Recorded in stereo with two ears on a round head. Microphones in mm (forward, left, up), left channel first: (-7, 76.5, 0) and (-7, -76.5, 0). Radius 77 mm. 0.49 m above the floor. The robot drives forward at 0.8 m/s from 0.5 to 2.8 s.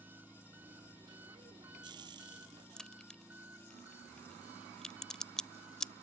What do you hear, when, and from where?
0.0 s an engine running: 10° right (ahead or behind)
2.8 s a crack: 5° left (ahead or behind)